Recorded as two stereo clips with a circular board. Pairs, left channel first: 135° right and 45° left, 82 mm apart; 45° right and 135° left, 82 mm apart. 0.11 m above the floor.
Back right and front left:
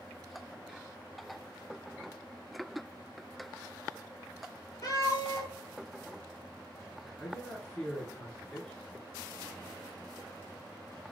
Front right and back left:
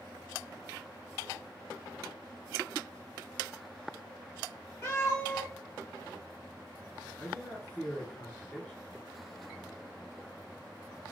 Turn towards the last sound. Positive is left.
turn(degrees=-60)